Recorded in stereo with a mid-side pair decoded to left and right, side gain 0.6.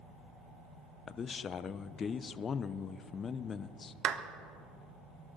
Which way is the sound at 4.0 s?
55° right.